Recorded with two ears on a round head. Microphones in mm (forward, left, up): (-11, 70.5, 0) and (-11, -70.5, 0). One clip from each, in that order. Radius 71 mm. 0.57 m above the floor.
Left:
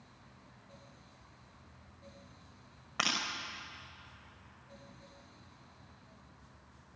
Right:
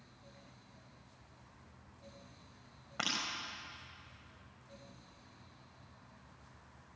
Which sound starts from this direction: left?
Breaking glass, at 3.0 s.